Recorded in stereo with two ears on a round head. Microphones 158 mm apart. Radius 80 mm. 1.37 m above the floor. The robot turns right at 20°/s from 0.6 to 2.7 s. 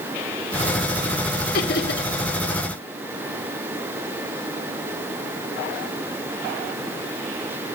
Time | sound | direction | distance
1.5 | laughter | 50° left (ahead or behind) | 1.1 m